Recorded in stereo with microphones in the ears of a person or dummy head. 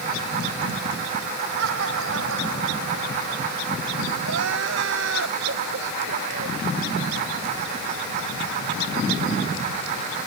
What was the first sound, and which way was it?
Laughter, 80° right.